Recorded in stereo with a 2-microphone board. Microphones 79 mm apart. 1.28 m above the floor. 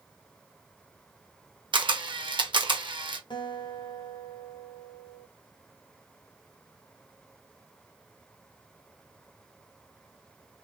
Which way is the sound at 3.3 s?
70° left (ahead or behind).